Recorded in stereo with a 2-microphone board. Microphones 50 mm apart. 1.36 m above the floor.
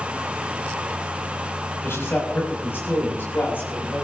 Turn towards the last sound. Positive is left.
turn(degrees=45)  # may be behind; listen again after turning